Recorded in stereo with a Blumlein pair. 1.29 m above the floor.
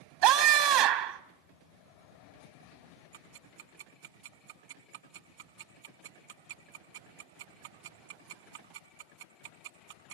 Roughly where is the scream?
Ahead right.